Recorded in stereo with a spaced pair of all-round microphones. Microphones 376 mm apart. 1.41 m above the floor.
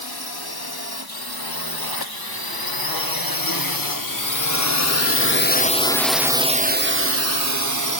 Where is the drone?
80° left; by 8.0 s 55° right (ahead or behind).